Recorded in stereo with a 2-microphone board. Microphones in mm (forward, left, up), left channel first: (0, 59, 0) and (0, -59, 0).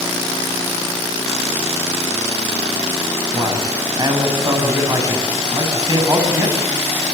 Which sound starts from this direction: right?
A man speaking, at 3.3 s.